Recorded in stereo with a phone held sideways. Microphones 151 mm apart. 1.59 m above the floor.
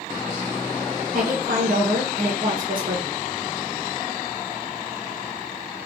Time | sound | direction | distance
1.1 | a woman speaking | 60° right (ahead or behind) | 1.2 m